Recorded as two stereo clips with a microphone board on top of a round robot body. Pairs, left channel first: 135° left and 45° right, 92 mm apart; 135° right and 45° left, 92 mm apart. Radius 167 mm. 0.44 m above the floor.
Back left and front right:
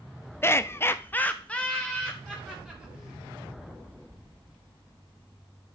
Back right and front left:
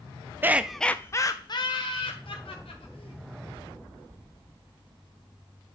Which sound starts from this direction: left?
Laughter, at 0.4 s.